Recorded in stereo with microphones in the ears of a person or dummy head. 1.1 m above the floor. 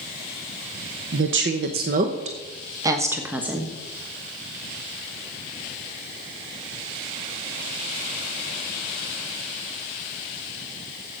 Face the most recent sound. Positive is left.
turn(degrees=0)  # may be behind; listen again after turning